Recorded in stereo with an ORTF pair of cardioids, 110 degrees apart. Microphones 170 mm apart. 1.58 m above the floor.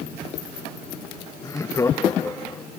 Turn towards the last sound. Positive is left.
turn(degrees=15)